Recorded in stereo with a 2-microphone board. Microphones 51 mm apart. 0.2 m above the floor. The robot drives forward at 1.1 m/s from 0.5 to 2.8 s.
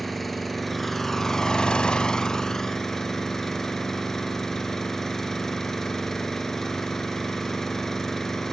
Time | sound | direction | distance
0.0 | an engine running | 5° left (ahead or behind) | 1.4 m